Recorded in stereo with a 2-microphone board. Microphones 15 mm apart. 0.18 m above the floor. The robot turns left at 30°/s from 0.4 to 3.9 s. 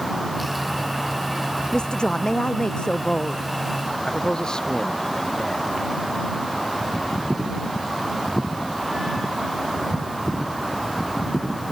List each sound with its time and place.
1.7 s a woman speaking: 110° left; by 3.5 s 55° left
4.1 s a man speaking: 50° left (ahead or behind)